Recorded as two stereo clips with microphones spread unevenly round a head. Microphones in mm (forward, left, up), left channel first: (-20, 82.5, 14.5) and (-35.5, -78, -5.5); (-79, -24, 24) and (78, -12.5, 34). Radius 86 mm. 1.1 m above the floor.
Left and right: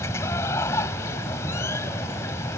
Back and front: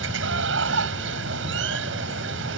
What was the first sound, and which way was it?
Running water, 10° left.